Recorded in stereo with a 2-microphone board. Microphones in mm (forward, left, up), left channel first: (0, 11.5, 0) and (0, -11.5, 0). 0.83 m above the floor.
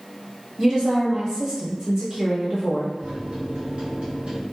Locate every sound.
0.6 s a woman speaking: 40° right (ahead or behind), 1.2 m
3.0 s a microwave: 55° right (ahead or behind), 0.8 m